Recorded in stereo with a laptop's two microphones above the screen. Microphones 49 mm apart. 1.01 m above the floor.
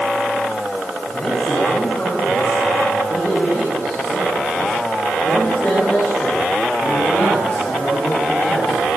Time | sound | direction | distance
1.1 | a man speaking | 30° left (ahead or behind) | 8.5 m